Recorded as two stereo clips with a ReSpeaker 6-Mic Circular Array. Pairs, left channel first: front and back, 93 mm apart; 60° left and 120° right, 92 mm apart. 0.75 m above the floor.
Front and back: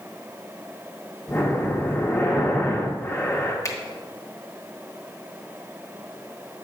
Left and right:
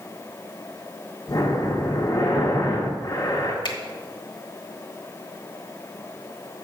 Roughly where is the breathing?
Ahead left.